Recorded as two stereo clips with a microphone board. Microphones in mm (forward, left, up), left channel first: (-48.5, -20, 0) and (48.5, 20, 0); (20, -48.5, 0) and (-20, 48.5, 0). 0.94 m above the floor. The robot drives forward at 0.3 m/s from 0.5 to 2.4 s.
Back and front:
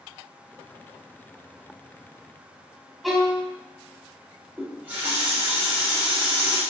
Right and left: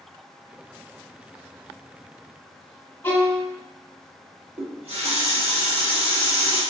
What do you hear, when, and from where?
3.0 s a violin: 65° right, 0.6 m
4.6 s a running tap: 95° left, 1.1 m